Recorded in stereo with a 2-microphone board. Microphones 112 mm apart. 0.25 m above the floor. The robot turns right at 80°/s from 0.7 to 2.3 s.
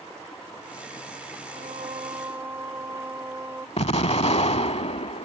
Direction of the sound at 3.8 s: 60° left (ahead or behind).